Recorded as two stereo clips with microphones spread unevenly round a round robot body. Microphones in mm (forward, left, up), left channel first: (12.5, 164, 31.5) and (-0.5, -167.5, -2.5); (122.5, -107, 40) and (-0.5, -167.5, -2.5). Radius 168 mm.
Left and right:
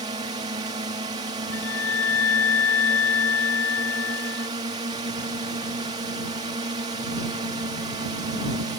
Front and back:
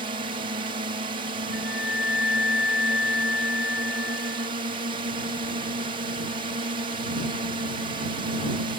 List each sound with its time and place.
0.0 s a drone: 165° right
1.5 s a flute: 80° left